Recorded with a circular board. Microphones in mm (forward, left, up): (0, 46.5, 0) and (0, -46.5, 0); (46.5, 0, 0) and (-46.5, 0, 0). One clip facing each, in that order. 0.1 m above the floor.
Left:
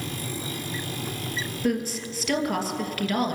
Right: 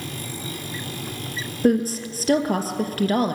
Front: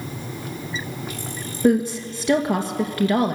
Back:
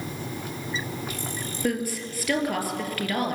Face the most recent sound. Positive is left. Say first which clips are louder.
# right 8 dB, front 10 dB
turn(degrees=-60)